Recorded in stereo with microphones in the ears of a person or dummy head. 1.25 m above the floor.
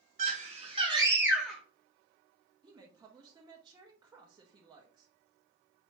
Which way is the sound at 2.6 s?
20° right (ahead or behind).